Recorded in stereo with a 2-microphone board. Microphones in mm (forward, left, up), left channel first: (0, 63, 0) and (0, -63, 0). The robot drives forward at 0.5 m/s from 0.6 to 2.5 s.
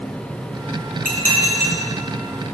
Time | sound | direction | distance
1.1 | dishes clattering | 80° left | 4 m